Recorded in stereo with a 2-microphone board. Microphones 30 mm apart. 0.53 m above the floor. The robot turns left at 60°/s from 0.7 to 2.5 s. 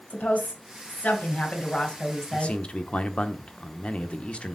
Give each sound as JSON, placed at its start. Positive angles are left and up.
{"t": 0.1, "sound": "a woman speaking", "azimuth_deg": 110, "distance_m": 2.5}
{"t": 2.3, "sound": "a man speaking", "side_deg": 45, "distance_m": 1.0}